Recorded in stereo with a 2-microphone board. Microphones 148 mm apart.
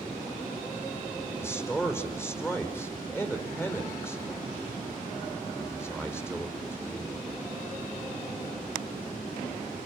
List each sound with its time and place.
1.4 s a man speaking: 15° left (ahead or behind), 5 m